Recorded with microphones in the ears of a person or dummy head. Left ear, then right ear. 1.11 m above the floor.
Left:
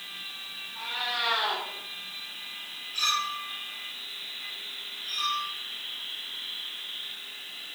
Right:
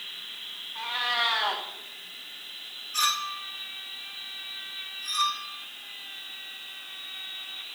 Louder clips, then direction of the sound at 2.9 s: Even; 50° right (ahead or behind).